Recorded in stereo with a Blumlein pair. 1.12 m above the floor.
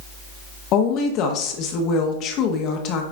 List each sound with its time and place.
0.7 s a woman speaking: 35° left, 1.3 m